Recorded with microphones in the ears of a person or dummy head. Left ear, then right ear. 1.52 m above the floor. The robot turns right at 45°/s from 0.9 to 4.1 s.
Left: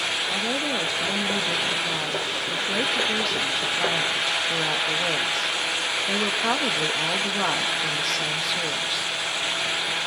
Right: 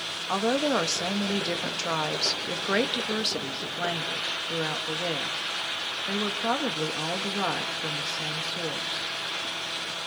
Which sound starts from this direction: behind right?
A woman speaking, at 0.3 s.